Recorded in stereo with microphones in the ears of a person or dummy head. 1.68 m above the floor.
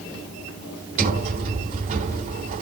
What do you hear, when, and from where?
1.0 s a sliding door: 45° right (ahead or behind), 2.5 m